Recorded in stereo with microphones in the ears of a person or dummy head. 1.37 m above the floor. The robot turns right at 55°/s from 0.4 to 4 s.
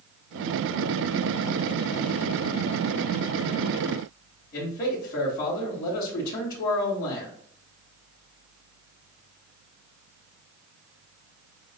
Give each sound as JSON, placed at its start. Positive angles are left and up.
{"t": 4.5, "sound": "a man speaking", "side_deg": 60, "distance_m": 3.0}